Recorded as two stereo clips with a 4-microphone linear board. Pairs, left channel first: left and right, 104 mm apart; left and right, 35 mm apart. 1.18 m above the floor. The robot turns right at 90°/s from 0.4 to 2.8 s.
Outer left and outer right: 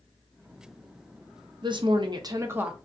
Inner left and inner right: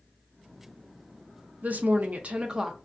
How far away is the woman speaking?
About 0.5 m.